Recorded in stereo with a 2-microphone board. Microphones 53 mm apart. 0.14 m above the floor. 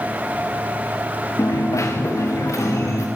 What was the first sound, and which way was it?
A dropped coin, 65° left (ahead or behind).